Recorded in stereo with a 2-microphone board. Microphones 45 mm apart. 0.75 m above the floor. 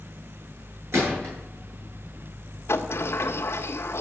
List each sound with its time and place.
0.9 s a gunshot: 65° right (ahead or behind), 9.5 m
2.7 s a sliding door: 65° left (ahead or behind), 1.6 m